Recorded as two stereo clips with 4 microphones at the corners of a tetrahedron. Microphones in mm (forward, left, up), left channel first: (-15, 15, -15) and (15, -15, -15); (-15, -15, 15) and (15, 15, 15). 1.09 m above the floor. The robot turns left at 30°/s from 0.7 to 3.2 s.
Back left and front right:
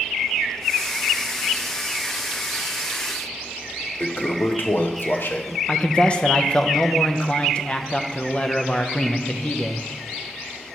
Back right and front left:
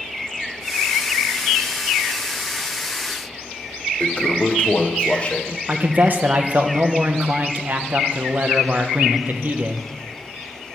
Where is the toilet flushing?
165° left, 0.6 m.